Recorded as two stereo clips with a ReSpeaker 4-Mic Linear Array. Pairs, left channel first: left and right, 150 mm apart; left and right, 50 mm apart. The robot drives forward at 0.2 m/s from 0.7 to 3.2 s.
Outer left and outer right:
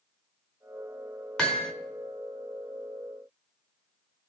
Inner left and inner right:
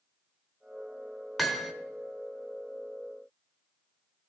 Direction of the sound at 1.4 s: 5° left (ahead or behind).